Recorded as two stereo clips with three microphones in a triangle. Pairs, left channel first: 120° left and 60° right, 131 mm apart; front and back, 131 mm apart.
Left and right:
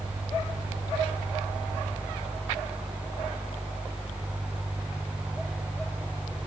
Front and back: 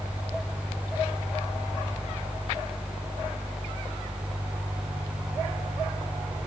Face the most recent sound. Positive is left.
No sound to turn to.